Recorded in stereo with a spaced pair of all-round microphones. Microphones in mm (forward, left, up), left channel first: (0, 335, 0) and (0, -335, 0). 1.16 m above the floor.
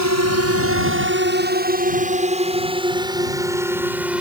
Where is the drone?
25° right (ahead or behind); by 4.2 s centre (ahead or behind).